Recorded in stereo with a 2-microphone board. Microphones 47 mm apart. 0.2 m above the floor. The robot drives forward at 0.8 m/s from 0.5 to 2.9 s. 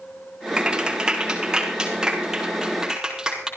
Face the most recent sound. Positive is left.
turn(degrees=-15)  # may be behind; listen again after turning